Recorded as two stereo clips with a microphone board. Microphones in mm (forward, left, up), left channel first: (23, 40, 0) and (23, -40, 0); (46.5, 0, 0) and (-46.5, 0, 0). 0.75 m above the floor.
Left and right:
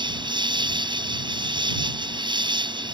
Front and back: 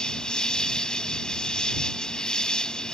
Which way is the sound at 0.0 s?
85° right.